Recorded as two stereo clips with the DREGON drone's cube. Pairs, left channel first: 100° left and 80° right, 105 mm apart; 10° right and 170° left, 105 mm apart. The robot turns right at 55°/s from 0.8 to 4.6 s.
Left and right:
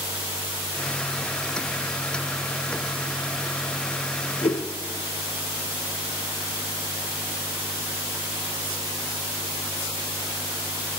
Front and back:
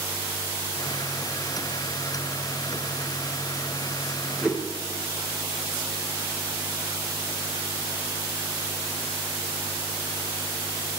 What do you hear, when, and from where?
4.4 s a whoosh: 90° left, 0.6 m; by 4.7 s 100° left, 0.6 m